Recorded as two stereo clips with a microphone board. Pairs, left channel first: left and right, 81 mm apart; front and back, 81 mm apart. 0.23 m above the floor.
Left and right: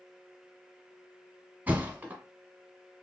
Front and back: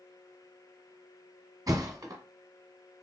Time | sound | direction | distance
1.7 | a thud | 155° right | 1.0 m